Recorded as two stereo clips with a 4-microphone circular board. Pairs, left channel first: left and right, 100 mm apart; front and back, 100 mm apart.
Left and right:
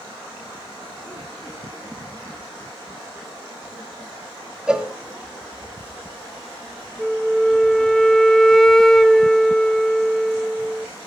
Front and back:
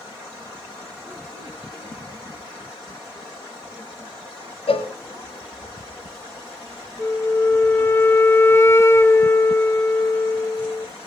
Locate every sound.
4.7 s a cowbell: 10° right, 1.5 m
7.0 s a flute: 10° left, 0.9 m